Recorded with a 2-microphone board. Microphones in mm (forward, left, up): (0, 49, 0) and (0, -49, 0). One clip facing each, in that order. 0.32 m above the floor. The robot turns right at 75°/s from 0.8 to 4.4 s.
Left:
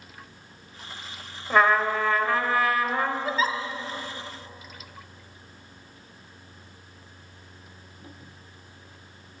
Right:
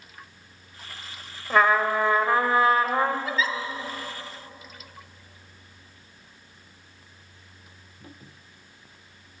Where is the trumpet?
5° left (ahead or behind), 1.6 m; by 3.1 s 25° right (ahead or behind), 1.6 m.